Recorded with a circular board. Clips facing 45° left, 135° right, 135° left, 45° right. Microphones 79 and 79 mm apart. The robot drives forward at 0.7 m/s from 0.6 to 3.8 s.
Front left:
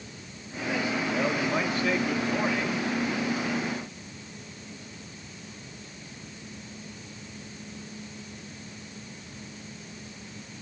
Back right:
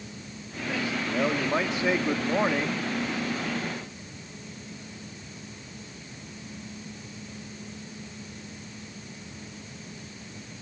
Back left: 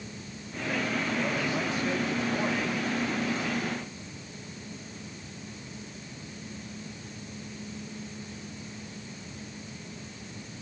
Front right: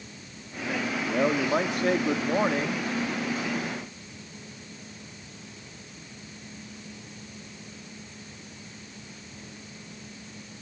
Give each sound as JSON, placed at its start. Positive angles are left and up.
{"t": 1.1, "sound": "a man speaking", "azimuth_deg": -55, "distance_m": 2.5}